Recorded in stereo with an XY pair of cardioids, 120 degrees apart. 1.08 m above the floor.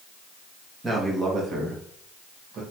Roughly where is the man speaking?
Ahead right.